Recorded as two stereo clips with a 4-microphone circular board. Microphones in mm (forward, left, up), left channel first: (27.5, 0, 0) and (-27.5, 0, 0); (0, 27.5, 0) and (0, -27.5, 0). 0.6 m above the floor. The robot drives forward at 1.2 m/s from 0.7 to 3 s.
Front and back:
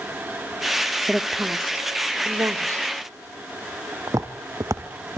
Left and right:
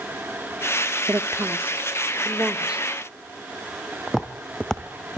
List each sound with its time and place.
1.1 s a woman speaking: 95° right, 1.1 m; by 2.9 s 160° right, 2.5 m
4.1 s footsteps: straight behind, 2.5 m; by 5.2 s 165° left, 2.5 m